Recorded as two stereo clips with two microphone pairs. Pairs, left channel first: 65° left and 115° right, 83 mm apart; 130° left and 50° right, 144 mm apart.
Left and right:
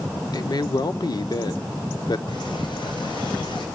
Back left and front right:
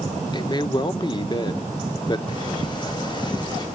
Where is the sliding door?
70° left, 3.5 m.